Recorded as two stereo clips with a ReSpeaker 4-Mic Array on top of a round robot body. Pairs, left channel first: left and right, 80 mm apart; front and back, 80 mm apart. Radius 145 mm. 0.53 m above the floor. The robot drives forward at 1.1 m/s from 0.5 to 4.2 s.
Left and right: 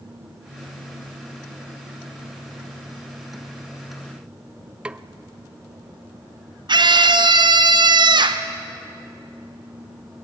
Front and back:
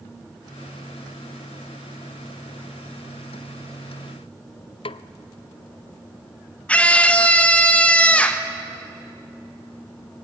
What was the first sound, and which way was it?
A snare drum, 10° right.